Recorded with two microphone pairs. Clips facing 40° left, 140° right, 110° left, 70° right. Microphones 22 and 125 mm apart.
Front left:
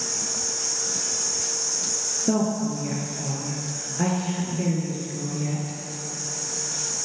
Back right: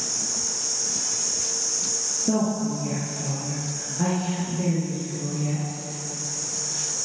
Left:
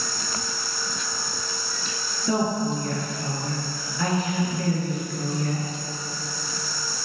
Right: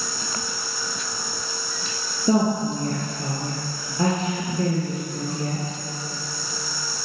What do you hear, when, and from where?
2.3 s a woman speaking: 15° right, 3 m